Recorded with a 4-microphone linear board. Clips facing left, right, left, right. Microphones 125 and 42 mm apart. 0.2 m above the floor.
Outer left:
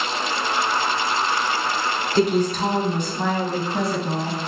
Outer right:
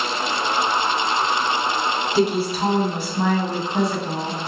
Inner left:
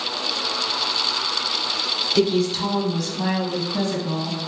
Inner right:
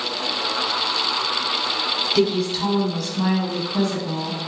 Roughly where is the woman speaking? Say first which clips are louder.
Outer left 2 dB, inner left 2 dB; centre.